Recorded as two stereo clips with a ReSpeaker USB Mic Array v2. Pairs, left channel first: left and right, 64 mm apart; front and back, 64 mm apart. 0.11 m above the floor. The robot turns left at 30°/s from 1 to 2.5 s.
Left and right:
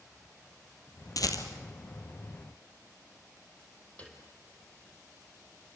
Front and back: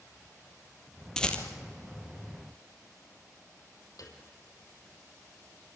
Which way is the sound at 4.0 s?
20° left.